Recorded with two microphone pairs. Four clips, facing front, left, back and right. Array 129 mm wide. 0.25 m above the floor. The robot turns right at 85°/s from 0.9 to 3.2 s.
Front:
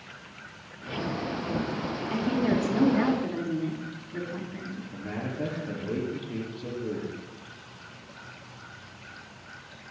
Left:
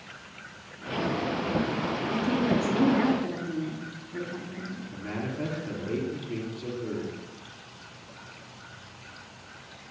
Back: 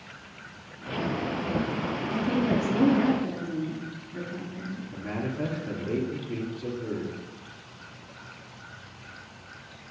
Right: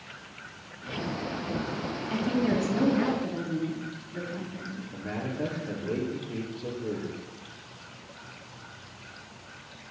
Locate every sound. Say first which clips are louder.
2.1 s a woman speaking: even, even; 40° right, 1.8 m; by 4.8 s 55° left, 1.8 m
4.9 s a man speaking: even, back 2 dB; 135° left, 2.5 m